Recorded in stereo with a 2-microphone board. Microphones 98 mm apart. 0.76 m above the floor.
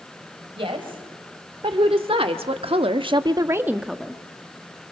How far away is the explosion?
I don't hear an explosion.